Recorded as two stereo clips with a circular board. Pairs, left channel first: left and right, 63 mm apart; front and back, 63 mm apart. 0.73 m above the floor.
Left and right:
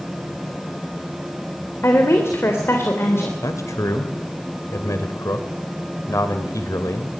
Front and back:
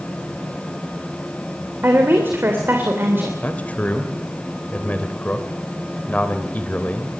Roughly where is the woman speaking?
Behind left.